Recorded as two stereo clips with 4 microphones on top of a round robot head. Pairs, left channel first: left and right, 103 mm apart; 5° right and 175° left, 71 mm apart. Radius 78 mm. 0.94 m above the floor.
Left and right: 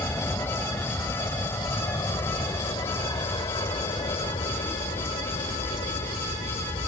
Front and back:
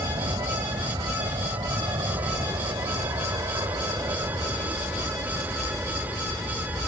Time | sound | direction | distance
0.0 | an aircraft | 155° left | ?